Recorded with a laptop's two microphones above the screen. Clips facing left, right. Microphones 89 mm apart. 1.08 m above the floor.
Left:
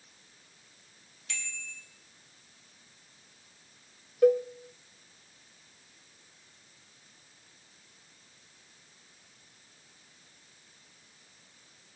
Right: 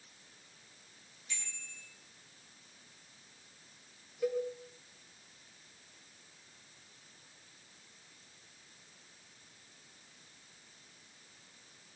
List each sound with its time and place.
1.3 s a bicycle bell: 80° left, 4 m
4.2 s a cowbell: 55° left (ahead or behind), 1.0 m